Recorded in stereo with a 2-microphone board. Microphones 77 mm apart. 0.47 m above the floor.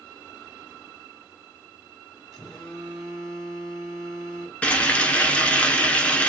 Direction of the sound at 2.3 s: Centre (ahead or behind).